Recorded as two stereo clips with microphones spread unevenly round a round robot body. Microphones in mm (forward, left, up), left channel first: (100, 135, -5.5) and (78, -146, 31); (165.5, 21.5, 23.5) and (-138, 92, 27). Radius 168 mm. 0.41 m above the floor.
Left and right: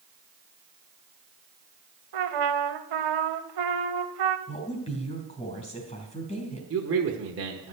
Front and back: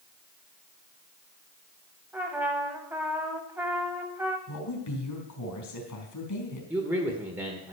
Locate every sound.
2.1 s a trumpet: 110° right, 0.8 m
4.5 s a woman speaking: 20° left, 4 m
6.7 s a man speaking: 110° right, 1.3 m